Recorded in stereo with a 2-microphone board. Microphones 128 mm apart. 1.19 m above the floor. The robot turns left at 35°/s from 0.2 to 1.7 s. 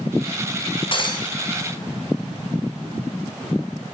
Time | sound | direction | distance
0.9 | breaking glass | 45° left (ahead or behind) | 3 m